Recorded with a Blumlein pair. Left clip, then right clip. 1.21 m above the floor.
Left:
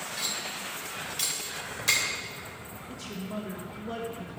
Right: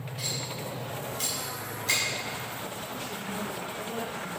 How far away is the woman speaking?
About 1.8 m.